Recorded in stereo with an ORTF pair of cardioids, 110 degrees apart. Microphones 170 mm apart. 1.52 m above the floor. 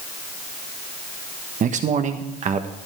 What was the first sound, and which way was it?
A man speaking, 50° right.